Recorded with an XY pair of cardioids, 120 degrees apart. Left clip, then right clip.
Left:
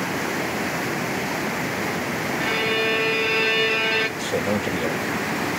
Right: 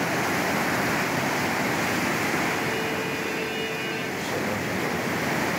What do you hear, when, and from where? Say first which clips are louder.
2.4 s a violin: left 4 dB; 70° left, 1.3 m
4.2 s a man speaking: left 4 dB; 45° left, 2.5 m